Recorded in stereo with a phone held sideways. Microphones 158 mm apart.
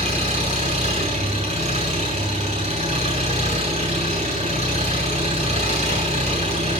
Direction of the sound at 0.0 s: 50° right (ahead or behind).